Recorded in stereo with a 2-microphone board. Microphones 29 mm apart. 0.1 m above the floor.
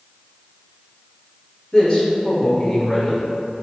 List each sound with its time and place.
1.7 s a man speaking: 25° left (ahead or behind), 1.5 m